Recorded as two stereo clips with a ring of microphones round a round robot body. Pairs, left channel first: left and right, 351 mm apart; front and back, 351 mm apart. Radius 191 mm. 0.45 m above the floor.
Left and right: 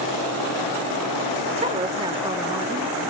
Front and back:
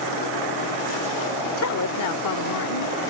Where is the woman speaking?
25° right; by 3.0 s 10° right.